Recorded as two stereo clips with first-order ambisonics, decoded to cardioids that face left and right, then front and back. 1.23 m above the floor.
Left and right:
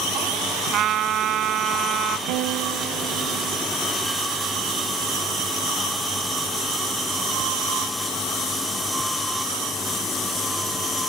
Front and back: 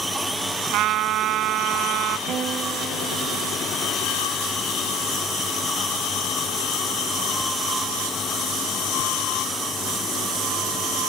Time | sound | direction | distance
0.7 | a trumpet | 140° right | ?
2.3 | a guitar | 120° right | ?